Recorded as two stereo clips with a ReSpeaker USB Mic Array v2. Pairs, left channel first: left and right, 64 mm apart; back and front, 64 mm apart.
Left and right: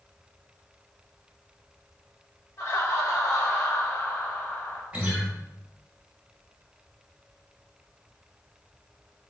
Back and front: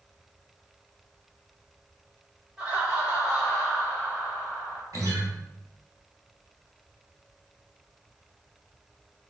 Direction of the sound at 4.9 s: 20° right.